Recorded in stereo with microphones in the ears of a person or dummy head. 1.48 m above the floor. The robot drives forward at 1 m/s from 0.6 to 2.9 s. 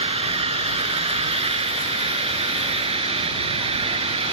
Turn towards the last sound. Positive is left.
turn(degrees=-25)  # may be behind; listen again after turning